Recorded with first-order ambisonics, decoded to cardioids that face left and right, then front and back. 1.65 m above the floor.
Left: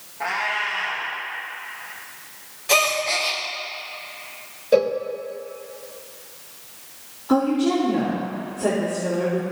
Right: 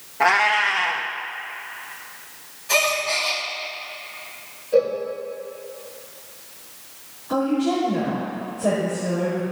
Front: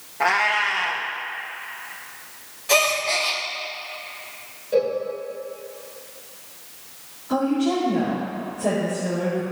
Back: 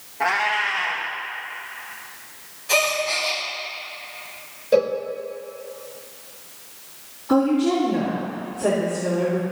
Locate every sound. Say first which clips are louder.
0.2 s a cat meowing: right 7 dB, front 1 dB; 70° right, 1.0 m
2.7 s a gasp: left 1 dB, front 1 dB; 65° left, 1.5 m
4.7 s a cowbell: left 1 dB, back 3 dB; 125° left, 1.1 m
7.3 s a woman speaking: left 2 dB, back 3 dB; 125° left, 3.5 m